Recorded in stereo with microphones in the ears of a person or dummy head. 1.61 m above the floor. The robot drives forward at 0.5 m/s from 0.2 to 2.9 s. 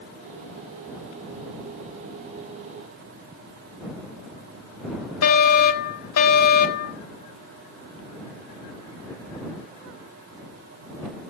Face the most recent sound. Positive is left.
turn(degrees=65)  # may be behind; listen again after turning